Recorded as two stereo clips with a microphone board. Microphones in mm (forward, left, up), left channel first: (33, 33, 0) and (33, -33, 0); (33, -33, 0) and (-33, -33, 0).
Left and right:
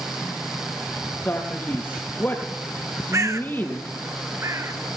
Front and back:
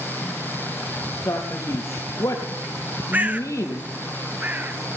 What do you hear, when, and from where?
1.2 s a man speaking: 30° left, 3.5 m
3.1 s a bird: 120° right, 1.1 m